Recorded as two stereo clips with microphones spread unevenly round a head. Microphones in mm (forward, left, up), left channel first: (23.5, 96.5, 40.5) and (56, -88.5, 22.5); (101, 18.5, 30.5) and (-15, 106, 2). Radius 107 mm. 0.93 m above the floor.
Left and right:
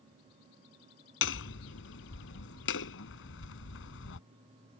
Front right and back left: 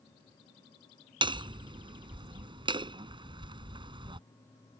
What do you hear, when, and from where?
1.2 s hammering: 85° left